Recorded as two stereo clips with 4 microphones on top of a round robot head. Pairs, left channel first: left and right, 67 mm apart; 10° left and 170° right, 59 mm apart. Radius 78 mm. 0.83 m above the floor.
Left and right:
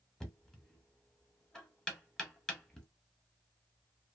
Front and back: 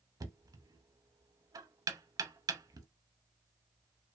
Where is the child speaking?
I don't hear a child speaking.